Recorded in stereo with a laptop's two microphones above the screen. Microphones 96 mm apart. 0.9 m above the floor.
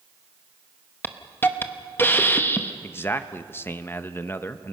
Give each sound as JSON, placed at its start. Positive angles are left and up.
{"t": 1.0, "sound": "a hiss", "side_deg": 25, "distance_m": 0.8}
{"t": 2.8, "sound": "a man speaking", "side_deg": 25, "distance_m": 0.7}